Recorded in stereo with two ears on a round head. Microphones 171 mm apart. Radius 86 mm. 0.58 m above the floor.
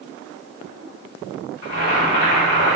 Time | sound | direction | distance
1.6 | boiling | 40° left (ahead or behind) | 0.9 m